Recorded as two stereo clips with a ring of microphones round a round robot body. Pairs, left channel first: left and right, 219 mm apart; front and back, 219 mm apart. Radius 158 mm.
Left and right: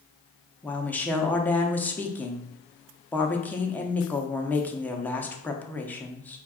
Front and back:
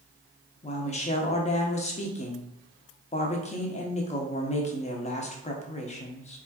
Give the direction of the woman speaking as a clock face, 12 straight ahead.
12 o'clock.